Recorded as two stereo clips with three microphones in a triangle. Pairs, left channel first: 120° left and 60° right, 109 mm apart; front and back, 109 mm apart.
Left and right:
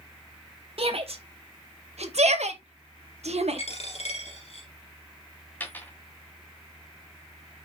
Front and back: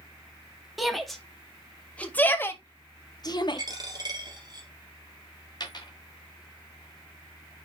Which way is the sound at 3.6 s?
130° left.